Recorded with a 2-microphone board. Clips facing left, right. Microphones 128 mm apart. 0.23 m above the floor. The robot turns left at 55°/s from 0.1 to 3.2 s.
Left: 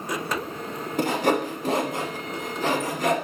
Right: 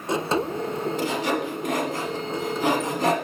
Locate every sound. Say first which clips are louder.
1.0 s sawing: left 6 dB; 55° left (ahead or behind), 1.2 m; by 3.1 s 35° right (ahead or behind), 1.2 m